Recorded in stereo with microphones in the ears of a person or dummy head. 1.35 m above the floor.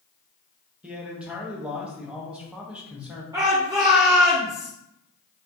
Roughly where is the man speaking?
Centre.